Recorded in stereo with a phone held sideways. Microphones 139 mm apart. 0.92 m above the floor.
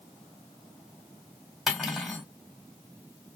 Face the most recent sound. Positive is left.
turn(degrees=0)  # may be behind; listen again after turning